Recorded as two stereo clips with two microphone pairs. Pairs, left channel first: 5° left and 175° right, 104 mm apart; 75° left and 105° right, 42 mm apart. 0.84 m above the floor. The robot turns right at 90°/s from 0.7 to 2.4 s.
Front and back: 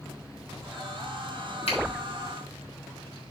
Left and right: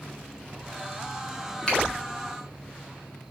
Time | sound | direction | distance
1.7 | a finger snap | 10° left | 3.5 m